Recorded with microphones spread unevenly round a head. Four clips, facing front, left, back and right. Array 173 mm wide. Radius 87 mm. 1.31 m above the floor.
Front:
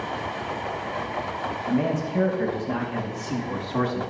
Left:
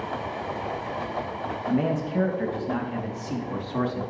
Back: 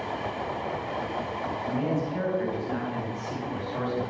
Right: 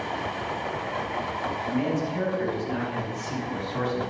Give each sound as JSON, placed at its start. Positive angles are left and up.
{"t": 1.7, "sound": "a man speaking", "azimuth_deg": 50, "distance_m": 2.5}